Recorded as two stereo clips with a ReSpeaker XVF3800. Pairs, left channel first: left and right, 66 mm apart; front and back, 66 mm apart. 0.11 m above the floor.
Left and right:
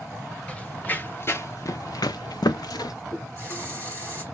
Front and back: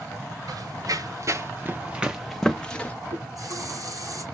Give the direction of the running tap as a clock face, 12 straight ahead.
7 o'clock.